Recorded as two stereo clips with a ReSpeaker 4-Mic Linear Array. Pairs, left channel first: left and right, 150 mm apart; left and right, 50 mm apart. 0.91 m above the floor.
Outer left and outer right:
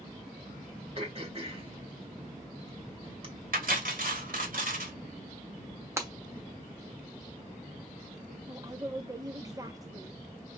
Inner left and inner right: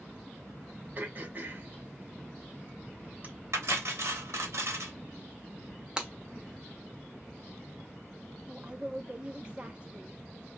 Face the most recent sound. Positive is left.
turn(degrees=-20)  # may be behind; listen again after turning